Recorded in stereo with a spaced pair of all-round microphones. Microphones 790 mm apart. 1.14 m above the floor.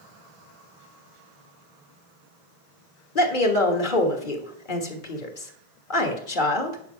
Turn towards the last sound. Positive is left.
turn(degrees=90)